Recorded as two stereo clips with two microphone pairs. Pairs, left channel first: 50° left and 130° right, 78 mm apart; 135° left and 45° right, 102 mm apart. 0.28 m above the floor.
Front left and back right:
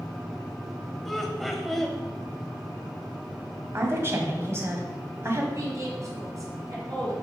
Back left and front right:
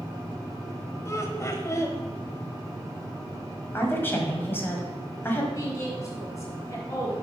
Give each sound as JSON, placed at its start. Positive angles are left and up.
{"t": 1.1, "sound": "laughter", "azimuth_deg": 135, "distance_m": 1.2}
{"t": 3.7, "sound": "a woman speaking", "azimuth_deg": -165, "distance_m": 1.9}
{"t": 5.5, "sound": "a woman speaking", "azimuth_deg": -170, "distance_m": 3.0}